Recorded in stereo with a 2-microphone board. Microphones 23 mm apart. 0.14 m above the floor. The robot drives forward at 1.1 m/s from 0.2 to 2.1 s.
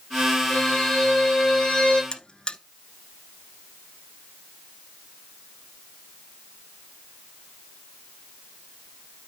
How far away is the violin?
About 7.5 m.